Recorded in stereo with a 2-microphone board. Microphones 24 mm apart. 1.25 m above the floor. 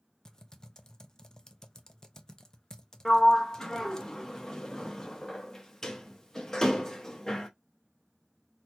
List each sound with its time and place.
0.2 s typing on a keyboard: 25° left (ahead or behind), 0.5 m
3.0 s a sliding door: 20° left (ahead or behind), 0.7 m